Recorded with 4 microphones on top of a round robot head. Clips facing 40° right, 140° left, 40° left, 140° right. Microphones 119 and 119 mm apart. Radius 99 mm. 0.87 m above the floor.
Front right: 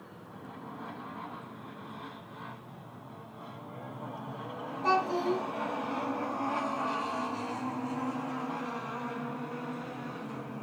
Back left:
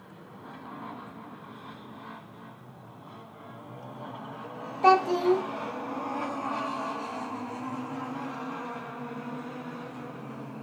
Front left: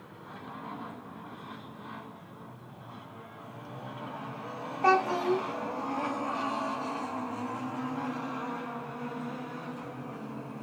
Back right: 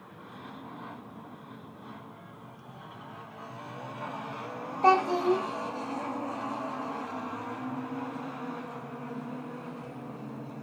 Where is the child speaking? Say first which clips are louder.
Back left 7 dB, back right 2 dB; 150° left, 1.6 m.